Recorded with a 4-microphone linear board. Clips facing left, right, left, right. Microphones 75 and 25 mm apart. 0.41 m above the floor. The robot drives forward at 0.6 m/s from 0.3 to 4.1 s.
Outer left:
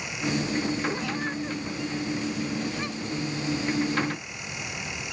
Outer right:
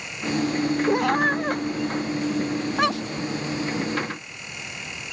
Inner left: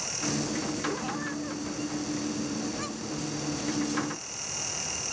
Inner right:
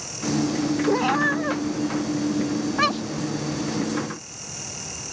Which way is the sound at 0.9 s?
60° right (ahead or behind).